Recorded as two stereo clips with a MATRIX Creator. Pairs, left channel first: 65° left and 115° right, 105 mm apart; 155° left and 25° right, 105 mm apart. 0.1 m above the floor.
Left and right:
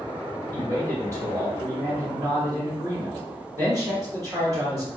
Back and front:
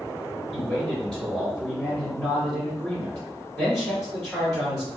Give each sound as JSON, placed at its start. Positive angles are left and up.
{"t": 0.5, "sound": "a man speaking", "azimuth_deg": -120, "distance_m": 2.0}